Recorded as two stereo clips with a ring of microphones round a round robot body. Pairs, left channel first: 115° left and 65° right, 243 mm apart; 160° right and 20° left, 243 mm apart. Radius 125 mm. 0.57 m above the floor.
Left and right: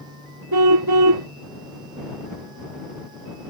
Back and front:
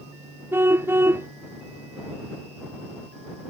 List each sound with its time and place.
0.5 s a car horn: 60° right